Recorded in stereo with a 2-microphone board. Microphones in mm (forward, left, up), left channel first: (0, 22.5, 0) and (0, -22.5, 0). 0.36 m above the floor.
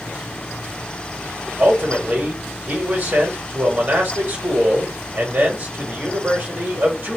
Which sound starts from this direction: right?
A man speaking, at 1.6 s.